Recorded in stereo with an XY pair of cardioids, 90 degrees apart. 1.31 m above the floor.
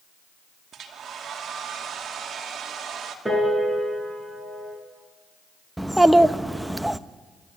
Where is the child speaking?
5° right, 1.0 m.